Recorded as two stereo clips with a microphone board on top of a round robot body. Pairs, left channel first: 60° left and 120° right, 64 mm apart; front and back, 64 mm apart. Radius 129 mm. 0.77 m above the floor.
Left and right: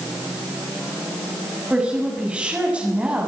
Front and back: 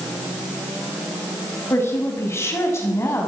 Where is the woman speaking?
45° right, 6.5 m.